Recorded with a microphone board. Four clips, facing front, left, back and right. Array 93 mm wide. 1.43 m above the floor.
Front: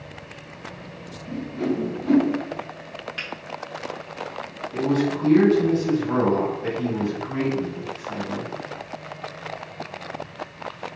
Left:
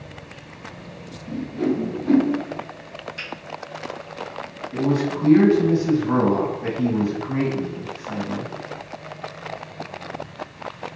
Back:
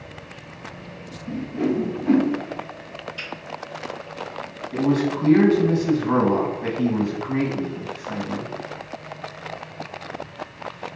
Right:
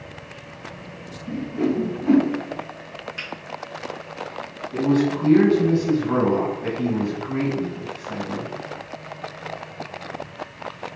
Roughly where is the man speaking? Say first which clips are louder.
Right 2 dB, back 1 dB; behind.